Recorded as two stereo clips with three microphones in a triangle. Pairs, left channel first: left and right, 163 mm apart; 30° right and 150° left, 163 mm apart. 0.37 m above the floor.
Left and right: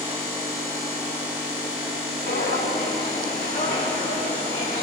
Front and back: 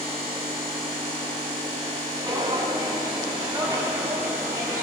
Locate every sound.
2.3 s footsteps: 85° left, 2 m; by 4.8 s 80° left, 5 m